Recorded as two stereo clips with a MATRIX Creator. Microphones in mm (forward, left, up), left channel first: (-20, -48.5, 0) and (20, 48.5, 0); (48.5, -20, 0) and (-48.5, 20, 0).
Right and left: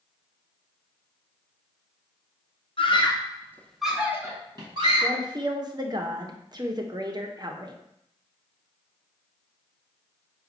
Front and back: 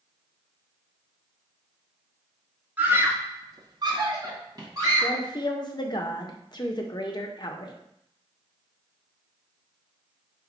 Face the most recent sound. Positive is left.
turn(degrees=20)